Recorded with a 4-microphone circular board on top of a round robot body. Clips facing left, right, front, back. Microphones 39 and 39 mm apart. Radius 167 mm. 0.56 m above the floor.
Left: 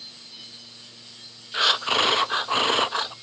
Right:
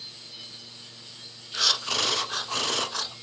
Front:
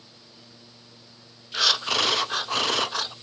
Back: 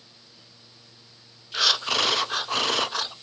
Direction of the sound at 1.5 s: 90° left.